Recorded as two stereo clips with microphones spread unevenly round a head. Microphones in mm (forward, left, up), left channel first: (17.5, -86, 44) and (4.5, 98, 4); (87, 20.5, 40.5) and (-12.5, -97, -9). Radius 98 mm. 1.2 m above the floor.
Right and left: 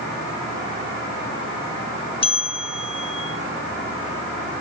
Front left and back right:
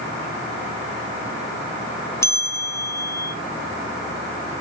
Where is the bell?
25° right, 0.9 m.